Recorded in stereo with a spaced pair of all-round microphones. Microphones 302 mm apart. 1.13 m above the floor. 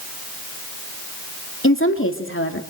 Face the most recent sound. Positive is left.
turn(degrees=45)  # may be behind; listen again after turning